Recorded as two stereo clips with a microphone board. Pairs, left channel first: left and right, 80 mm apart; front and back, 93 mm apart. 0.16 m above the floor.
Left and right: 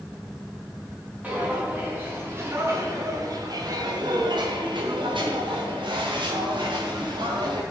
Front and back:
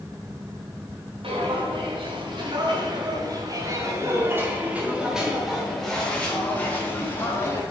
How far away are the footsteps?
About 5 m.